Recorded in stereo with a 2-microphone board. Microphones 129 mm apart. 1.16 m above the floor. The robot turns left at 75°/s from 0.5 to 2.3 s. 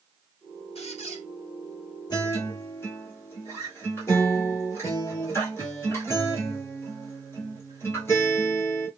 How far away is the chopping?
I don't hear chopping.